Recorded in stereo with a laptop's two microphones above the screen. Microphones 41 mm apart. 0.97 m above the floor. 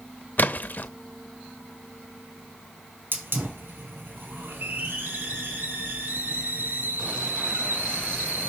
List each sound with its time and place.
0.4 s a splash: 45° left (ahead or behind), 0.7 m
3.1 s a hiss: 65° right (ahead or behind), 3.5 m